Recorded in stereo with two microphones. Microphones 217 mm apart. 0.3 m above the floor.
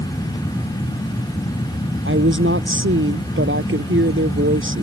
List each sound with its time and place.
2.0 s a woman speaking: 80° right